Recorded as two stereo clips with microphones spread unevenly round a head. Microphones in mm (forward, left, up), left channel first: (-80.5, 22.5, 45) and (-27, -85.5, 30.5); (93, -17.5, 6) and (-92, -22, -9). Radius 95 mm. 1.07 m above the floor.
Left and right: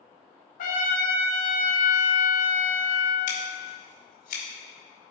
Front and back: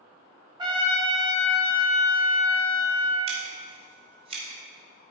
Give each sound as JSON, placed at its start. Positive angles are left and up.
{"t": 0.6, "sound": "a trumpet", "azimuth_deg": 110, "distance_m": 1.9}
{"t": 3.3, "sound": "scissors", "azimuth_deg": 120, "distance_m": 2.5}